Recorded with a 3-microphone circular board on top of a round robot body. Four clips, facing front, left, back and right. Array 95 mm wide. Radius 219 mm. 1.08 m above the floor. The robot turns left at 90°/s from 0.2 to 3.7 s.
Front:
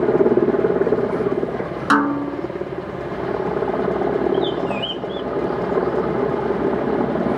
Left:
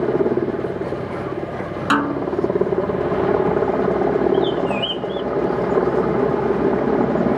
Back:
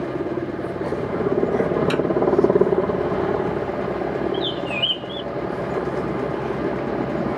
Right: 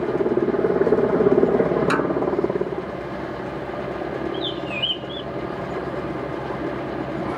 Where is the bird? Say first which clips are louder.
Left 9 dB, front 4 dB; 135° left.